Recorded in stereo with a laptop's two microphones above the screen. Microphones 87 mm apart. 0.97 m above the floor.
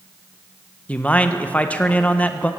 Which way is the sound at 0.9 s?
15° left (ahead or behind).